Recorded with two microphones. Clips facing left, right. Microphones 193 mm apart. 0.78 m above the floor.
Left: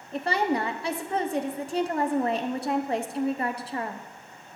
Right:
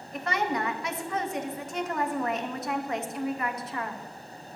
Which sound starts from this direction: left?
A woman speaking, at 0.1 s.